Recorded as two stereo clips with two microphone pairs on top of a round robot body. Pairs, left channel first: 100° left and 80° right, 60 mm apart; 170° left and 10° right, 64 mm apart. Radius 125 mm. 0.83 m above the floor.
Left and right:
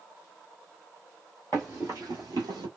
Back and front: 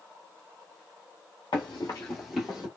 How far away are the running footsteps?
About 0.9 m.